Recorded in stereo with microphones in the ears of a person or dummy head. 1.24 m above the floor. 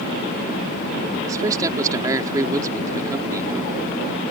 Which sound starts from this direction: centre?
A man speaking, at 1.3 s.